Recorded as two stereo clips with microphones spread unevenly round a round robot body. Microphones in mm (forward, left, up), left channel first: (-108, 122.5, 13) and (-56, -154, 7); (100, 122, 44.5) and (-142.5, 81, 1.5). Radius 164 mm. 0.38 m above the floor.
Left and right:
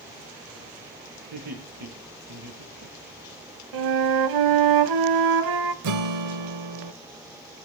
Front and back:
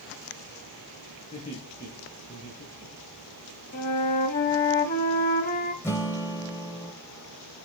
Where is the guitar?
75° right, 0.9 m.